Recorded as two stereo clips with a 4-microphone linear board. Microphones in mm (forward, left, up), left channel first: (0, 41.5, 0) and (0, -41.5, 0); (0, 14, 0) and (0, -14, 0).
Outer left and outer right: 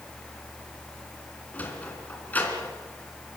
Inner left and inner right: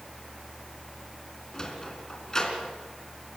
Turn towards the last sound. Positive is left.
turn(degrees=20)  # may be behind; listen again after turning